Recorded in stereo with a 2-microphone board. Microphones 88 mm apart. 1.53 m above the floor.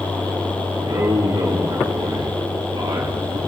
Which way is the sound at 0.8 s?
85° right.